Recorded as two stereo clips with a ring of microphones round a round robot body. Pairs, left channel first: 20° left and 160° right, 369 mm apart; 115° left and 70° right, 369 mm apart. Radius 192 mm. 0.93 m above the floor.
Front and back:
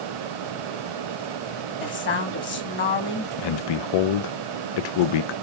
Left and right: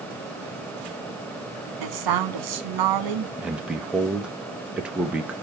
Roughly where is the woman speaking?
Ahead right.